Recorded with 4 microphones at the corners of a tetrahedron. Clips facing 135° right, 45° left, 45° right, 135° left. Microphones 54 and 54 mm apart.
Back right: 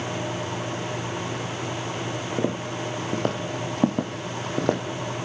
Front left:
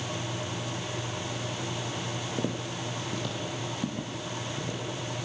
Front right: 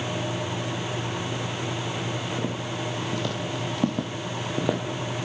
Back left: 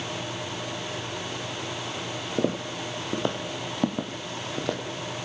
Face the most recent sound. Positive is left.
turn(degrees=-125)